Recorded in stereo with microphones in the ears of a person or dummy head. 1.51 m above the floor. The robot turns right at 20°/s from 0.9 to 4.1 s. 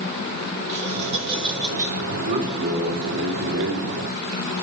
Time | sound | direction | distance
0.7 | laughter | 40° right (ahead or behind) | 5 m
2.1 | a man speaking | 145° right | 4.5 m